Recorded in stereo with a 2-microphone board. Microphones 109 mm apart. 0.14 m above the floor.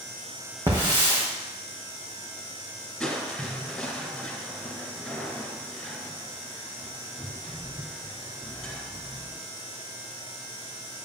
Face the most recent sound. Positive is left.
turn(degrees=5)  # may be behind; listen again after turning